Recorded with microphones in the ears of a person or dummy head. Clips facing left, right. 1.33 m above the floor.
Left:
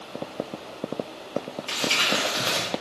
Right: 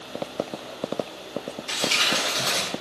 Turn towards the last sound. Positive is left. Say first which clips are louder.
# left 1 dB
turn(degrees=40)  # may be behind; listen again after turning